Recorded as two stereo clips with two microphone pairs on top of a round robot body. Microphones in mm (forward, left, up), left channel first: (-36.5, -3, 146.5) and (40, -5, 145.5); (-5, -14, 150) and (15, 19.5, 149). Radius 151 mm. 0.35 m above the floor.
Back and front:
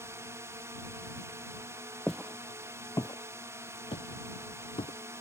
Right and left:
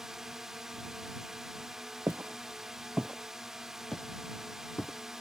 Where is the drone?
10° right.